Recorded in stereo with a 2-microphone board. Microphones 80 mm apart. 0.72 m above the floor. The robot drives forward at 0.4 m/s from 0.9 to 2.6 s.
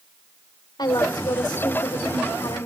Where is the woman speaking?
65° left (ahead or behind), 2 m; by 2.7 s 75° left (ahead or behind), 1.9 m.